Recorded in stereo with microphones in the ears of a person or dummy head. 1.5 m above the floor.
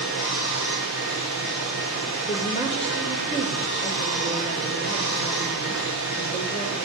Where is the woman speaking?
35° left (ahead or behind), 1.8 m.